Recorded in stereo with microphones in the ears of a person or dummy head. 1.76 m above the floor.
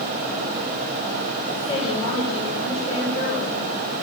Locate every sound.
1.5 s a woman speaking: 30° left (ahead or behind), 9 m